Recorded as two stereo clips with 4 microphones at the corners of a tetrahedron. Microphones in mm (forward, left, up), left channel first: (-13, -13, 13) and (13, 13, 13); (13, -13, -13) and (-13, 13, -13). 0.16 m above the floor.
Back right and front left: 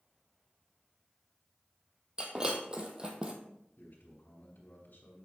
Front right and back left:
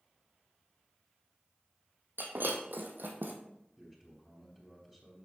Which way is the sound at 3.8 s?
145° right.